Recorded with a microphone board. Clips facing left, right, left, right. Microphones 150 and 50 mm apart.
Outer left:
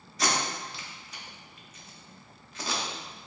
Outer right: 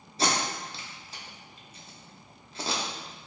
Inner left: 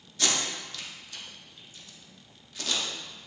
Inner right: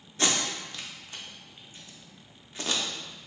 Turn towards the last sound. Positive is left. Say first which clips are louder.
# outer right 1 dB, inner right 2 dB
turn(degrees=-30)  # may be behind; listen again after turning